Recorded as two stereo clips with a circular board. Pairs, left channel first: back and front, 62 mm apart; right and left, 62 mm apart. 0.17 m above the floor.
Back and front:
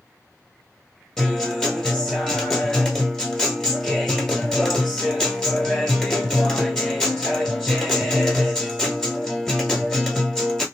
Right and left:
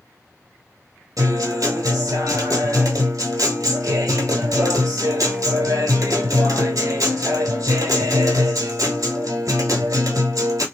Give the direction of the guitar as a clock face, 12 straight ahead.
9 o'clock.